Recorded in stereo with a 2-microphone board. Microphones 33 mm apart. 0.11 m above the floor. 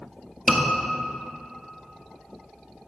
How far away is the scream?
About 1.9 m.